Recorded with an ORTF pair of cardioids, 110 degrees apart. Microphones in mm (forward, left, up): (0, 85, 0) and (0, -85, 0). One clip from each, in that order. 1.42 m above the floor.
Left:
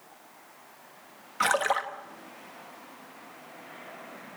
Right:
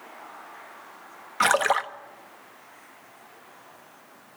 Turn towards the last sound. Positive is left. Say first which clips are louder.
# right 4 dB
turn(degrees=-30)